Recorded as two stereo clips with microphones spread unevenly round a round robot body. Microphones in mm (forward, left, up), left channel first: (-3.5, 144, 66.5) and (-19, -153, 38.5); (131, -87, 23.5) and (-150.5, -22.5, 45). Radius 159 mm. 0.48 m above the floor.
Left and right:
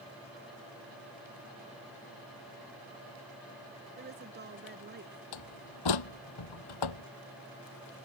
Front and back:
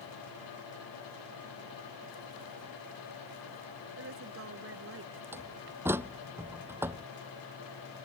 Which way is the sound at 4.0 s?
150° right.